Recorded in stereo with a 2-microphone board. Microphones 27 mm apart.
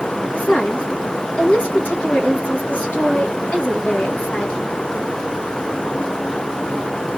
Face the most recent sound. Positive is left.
turn(degrees=70)  # may be behind; listen again after turning